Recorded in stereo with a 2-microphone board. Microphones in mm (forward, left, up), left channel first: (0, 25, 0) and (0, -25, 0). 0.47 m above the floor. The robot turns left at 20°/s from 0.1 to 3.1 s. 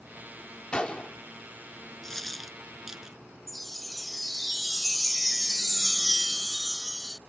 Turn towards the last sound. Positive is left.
turn(degrees=0)  # may be behind; listen again after turning